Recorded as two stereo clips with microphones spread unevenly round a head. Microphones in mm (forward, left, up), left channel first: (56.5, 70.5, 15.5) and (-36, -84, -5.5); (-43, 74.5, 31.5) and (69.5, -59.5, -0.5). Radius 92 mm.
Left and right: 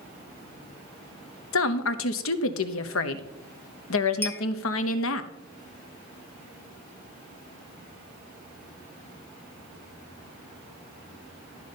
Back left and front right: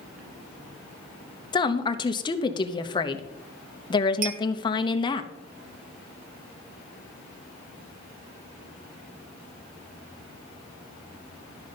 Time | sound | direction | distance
1.5 | a woman speaking | 65° left | 0.9 m
4.2 | a clink | 10° right | 0.9 m